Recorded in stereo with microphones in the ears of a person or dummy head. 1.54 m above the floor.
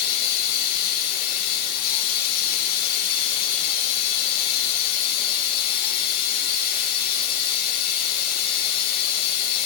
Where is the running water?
50° left (ahead or behind), 1.1 m.